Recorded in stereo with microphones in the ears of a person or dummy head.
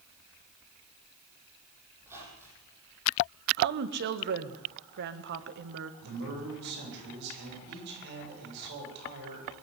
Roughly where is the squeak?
Centre.